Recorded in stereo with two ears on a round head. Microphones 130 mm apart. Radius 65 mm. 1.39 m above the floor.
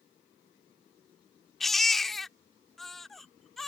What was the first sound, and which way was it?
A baby crying, centre (ahead or behind).